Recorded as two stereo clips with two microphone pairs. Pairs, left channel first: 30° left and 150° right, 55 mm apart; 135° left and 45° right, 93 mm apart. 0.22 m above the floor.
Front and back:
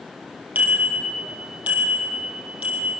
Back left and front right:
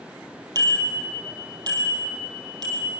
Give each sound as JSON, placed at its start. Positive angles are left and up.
{"t": 0.6, "sound": "a bicycle bell", "azimuth_deg": -90, "distance_m": 4.0}